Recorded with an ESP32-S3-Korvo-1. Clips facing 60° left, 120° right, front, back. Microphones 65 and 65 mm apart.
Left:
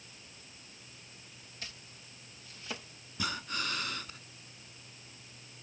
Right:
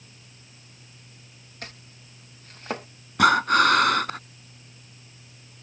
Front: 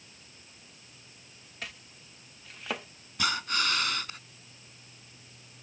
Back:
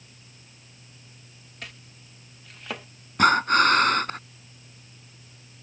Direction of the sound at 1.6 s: 90° right.